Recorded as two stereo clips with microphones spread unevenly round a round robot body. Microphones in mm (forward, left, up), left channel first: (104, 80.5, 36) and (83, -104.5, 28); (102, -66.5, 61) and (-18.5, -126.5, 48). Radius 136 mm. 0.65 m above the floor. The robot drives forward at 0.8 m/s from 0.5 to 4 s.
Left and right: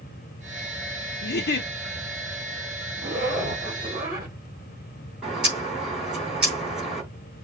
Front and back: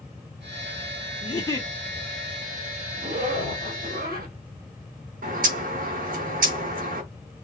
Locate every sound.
1.2 s a giggle: 75° left, 0.9 m; by 1.7 s 105° left, 0.9 m
3.0 s a zipper: 170° right, 3 m
5.2 s a bird: 175° left, 3.5 m